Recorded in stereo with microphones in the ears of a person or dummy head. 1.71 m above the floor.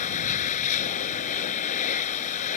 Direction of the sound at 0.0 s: 40° left (ahead or behind).